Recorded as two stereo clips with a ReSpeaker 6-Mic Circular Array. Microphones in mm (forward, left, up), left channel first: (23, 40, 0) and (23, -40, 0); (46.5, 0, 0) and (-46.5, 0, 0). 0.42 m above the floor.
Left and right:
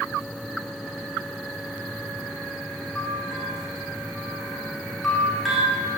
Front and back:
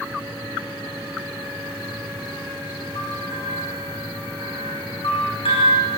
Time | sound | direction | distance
3.0 | a bell | 5° left | 7 m